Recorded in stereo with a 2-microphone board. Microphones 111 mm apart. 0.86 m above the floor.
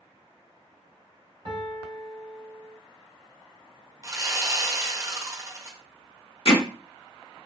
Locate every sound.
1.4 s a piano: 50° right (ahead or behind), 1.6 m
4.0 s sawing: 30° right (ahead or behind), 0.6 m
6.5 s hammering: 55° left (ahead or behind), 0.9 m